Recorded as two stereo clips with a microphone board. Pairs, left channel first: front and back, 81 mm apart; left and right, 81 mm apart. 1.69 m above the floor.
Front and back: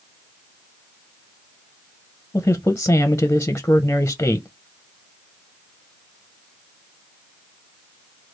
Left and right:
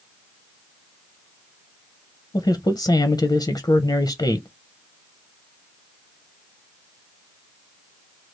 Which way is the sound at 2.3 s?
65° left.